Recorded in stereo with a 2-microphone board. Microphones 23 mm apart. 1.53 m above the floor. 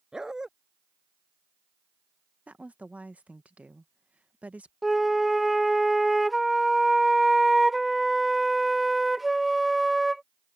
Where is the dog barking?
25° right (ahead or behind).